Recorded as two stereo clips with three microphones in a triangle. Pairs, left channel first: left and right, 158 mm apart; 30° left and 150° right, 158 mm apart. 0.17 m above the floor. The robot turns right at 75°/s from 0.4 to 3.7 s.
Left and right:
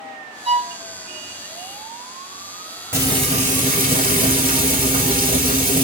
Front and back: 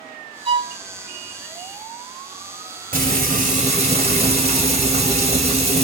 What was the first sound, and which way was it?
A violin, 120° right.